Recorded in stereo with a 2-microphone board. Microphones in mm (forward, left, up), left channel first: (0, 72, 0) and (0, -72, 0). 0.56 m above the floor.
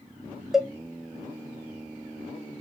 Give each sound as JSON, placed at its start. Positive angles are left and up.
{"t": 0.5, "sound": "a cowbell", "side_deg": -5, "distance_m": 0.6}